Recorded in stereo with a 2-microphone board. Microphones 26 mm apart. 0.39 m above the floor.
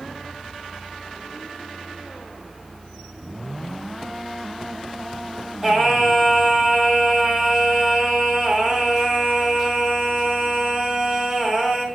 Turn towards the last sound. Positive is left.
turn(degrees=-5)  # may be behind; listen again after turning